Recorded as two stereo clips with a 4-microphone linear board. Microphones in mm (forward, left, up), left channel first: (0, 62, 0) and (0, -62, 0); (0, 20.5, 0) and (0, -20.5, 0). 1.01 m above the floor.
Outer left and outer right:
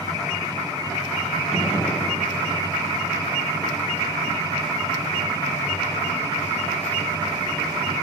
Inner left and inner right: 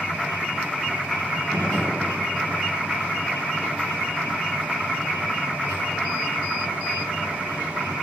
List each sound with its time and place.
1.5 s a gunshot: 55° left (ahead or behind), 7 m